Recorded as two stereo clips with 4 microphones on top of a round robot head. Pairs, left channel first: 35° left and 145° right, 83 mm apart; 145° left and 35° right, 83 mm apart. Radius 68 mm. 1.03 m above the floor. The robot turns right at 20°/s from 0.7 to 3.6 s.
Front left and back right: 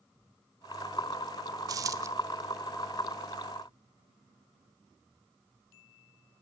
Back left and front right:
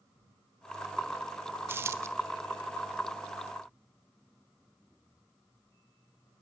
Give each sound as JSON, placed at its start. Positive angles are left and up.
{"t": 1.7, "sound": "a dropped coin", "azimuth_deg": -100, "distance_m": 1.2}